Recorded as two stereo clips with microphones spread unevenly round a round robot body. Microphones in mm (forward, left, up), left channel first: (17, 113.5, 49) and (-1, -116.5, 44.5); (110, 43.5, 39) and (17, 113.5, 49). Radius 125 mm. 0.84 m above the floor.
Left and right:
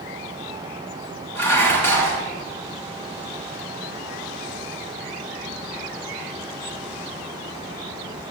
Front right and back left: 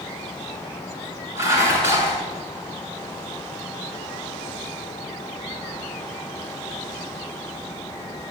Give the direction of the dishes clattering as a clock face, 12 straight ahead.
3 o'clock.